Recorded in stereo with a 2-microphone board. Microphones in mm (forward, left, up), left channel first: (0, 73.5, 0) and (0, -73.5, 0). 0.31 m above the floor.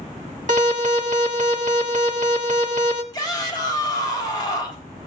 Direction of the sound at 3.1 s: 30° left (ahead or behind).